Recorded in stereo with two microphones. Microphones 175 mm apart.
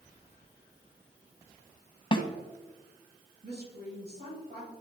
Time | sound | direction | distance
2.1 | a snare drum | 30° left (ahead or behind) | 0.9 m
3.4 | a woman speaking | 70° right (ahead or behind) | 3.5 m